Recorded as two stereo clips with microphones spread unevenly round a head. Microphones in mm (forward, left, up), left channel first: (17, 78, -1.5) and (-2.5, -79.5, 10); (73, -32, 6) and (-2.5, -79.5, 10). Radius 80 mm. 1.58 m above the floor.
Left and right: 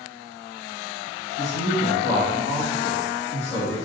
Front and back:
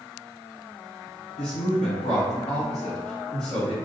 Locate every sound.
1.4 s a woman speaking: 75° left, 1.1 m